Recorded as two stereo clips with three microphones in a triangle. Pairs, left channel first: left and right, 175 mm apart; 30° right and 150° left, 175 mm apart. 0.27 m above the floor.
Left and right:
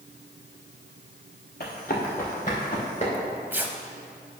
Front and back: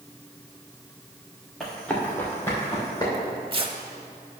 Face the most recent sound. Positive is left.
turn(degrees=-165)